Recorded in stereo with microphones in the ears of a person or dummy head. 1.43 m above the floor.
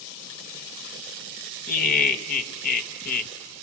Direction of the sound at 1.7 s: 50° left (ahead or behind).